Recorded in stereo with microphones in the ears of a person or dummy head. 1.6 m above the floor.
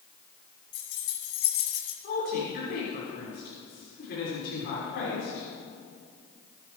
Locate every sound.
0.7 s keys jangling: 65° left (ahead or behind), 3.5 m; by 1.9 s 75° left (ahead or behind), 3 m
2.0 s a woman speaking: 55° left (ahead or behind), 5.5 m